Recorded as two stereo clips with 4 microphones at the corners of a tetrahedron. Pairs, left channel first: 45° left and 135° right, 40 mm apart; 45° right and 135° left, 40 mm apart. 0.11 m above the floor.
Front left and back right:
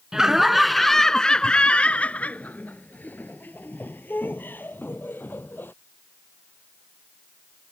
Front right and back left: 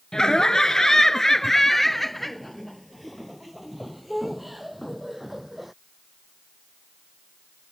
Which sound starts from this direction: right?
Laughter, at 0.1 s.